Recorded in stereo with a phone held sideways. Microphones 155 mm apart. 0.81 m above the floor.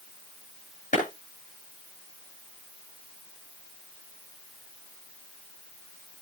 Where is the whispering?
I don't hear whispering.